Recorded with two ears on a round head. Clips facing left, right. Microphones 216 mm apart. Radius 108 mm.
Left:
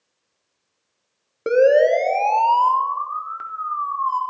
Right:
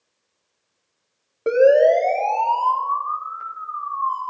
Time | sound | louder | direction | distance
1.5 | a siren | right 1 dB | 25° left (ahead or behind) | 2.5 m